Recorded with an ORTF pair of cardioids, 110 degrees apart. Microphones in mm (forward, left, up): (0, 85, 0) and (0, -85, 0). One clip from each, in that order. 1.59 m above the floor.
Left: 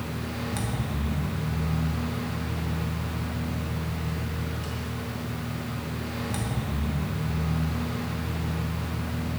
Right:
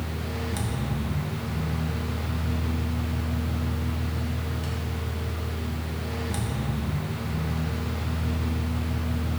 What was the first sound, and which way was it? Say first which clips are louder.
A fan: even; 5° right.